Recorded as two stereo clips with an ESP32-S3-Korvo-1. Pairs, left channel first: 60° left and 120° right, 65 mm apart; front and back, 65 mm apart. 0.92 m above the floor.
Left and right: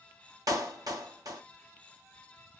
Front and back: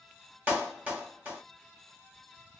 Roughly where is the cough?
I don't hear a cough.